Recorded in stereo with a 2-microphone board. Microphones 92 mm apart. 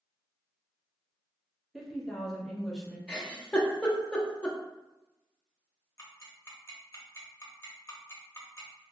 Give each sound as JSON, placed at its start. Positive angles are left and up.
{"t": 1.7, "sound": "a woman speaking", "side_deg": 5, "distance_m": 0.8}
{"t": 3.1, "sound": "a giggle", "side_deg": 15, "distance_m": 0.5}
{"t": 6.0, "sound": "ticking", "side_deg": 30, "distance_m": 0.7}